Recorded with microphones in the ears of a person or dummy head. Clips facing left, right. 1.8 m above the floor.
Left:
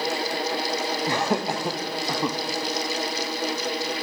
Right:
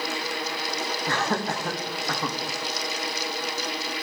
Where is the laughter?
15° left (ahead or behind), 1.0 m.